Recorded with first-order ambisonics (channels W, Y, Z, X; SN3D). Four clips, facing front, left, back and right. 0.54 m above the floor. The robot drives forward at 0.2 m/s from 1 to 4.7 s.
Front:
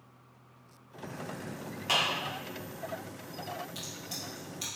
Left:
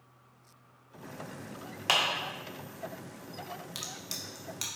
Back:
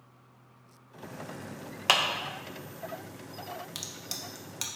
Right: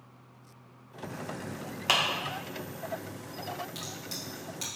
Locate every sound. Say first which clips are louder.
1.9 s a clap: right 1 dB, back 4 dB; 175° right, 0.6 m
3.8 s a crack: right 1 dB, back 1 dB; 155° left, 0.7 m; by 4.7 s 160° left, 0.9 m